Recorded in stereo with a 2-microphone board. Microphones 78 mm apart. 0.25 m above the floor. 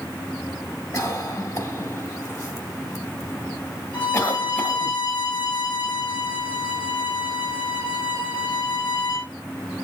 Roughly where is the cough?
Left.